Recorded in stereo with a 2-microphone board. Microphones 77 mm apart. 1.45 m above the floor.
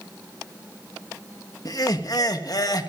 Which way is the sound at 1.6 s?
55° left (ahead or behind).